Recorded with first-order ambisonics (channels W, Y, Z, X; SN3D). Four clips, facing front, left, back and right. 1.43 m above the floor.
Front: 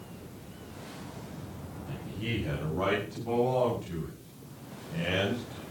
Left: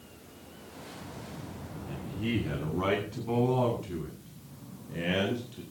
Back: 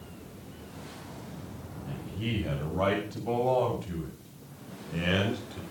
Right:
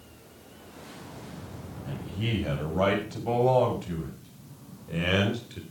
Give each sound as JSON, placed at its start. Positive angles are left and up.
{"t": 1.9, "sound": "a man speaking", "azimuth_deg": -95, "distance_m": 8.0}